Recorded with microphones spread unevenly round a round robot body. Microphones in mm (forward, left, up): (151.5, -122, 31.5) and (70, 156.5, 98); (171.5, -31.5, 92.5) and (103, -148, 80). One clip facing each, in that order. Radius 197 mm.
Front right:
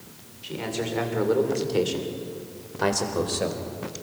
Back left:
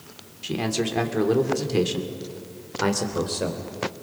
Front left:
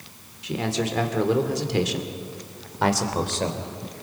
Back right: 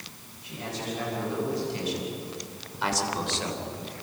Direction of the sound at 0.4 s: 85° left.